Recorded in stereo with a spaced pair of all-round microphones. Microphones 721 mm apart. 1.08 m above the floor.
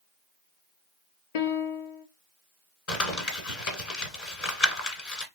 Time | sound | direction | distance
1.4 | a piano | 70° left (ahead or behind) | 0.6 m
2.9 | crumpling | 55° left (ahead or behind) | 1.9 m